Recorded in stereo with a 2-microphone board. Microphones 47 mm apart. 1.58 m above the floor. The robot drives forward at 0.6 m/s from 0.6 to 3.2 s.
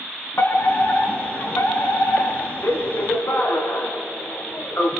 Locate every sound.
0.4 s a fire alarm: 55° left (ahead or behind), 3.5 m; by 4.9 s 70° left (ahead or behind), 3 m